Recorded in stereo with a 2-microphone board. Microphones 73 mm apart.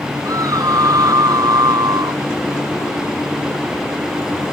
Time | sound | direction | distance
0.2 | a scream | 60° right (ahead or behind) | ?